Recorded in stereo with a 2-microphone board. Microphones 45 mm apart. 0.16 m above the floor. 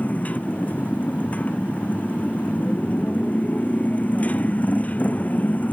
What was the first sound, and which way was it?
A motorcycle, 35° left (ahead or behind).